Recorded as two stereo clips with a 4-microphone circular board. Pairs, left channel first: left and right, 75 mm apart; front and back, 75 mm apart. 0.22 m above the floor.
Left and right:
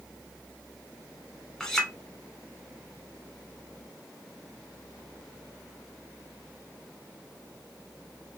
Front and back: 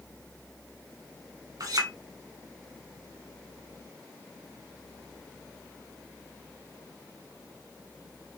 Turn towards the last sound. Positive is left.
turn(degrees=170)